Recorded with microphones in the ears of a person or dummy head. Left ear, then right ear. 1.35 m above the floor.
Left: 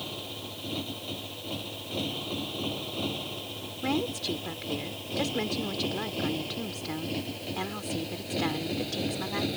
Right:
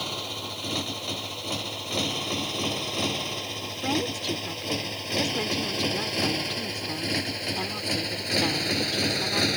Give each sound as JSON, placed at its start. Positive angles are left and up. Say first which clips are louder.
{"t": 0.0, "sound": "a motorcycle", "louder": "right 6 dB", "side_deg": -65}
{"t": 3.8, "sound": "a woman speaking", "louder": "right 2 dB", "side_deg": -10}